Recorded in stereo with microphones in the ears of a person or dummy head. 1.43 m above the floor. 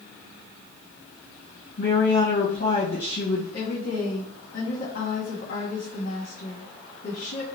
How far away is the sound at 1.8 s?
About 1.8 m.